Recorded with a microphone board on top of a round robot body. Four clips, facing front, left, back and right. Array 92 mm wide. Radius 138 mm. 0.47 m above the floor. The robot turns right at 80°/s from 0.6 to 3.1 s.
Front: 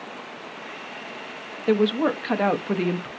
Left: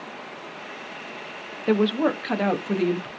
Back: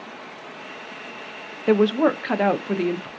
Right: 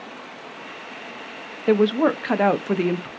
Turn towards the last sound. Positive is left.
turn(degrees=-50)